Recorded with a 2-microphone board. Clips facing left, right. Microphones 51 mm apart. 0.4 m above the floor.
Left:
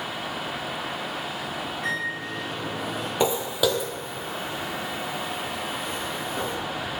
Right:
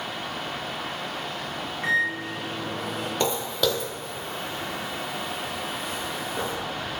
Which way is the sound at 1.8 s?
40° right (ahead or behind).